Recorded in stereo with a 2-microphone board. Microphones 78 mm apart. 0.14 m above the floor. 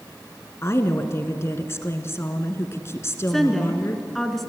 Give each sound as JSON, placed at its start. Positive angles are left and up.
{"t": 0.6, "sound": "a woman speaking", "side_deg": 35, "distance_m": 1.4}
{"t": 3.3, "sound": "a woman speaking", "side_deg": 5, "distance_m": 1.7}